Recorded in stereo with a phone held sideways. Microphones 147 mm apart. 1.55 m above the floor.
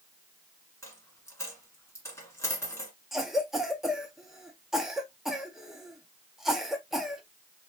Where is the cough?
Centre (ahead or behind), 1.4 m.